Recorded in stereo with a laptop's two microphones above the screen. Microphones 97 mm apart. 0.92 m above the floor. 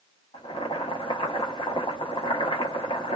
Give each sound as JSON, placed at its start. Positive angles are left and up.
{"t": 0.3, "sound": "boiling", "side_deg": 85, "distance_m": 0.8}